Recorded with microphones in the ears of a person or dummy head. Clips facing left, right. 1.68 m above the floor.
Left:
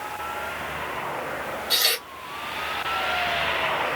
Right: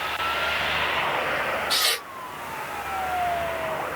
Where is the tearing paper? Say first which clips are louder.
Even; 10° left (ahead or behind), 2 m.